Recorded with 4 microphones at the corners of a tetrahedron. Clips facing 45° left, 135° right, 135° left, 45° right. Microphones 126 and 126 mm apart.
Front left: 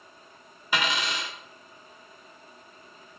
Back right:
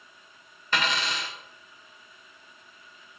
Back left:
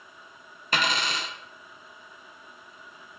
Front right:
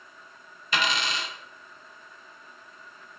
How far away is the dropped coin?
About 0.5 m.